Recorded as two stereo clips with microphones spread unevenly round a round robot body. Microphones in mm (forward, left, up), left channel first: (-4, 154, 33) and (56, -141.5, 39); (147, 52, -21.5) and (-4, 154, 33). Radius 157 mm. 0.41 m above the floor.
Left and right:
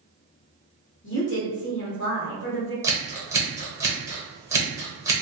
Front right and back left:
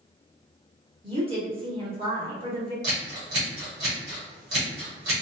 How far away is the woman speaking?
About 1.1 m.